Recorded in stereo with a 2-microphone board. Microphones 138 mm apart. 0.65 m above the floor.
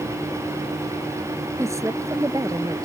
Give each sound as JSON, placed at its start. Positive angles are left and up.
{"t": 1.6, "sound": "a woman speaking", "side_deg": -20}